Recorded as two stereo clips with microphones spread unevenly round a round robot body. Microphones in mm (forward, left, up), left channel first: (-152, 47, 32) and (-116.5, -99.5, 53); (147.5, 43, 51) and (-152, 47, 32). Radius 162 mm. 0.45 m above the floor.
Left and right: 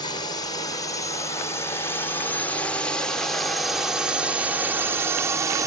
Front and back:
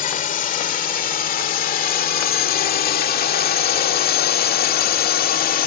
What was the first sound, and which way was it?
A drone, 55° left.